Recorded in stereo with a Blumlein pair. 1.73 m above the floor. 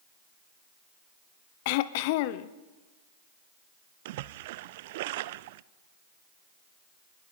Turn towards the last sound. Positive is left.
turn(degrees=-50)